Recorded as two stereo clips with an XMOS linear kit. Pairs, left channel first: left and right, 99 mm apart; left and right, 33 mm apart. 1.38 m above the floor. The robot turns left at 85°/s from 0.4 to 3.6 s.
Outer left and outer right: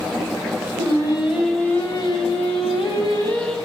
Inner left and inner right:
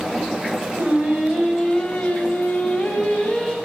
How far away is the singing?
About 4.5 m.